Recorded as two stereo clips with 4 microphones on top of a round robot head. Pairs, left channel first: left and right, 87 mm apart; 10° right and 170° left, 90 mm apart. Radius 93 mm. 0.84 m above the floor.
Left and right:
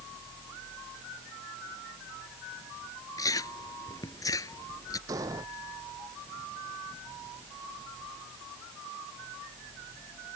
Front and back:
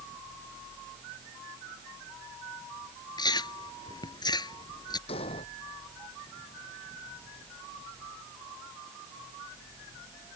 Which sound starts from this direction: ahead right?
An explosion, at 5.1 s.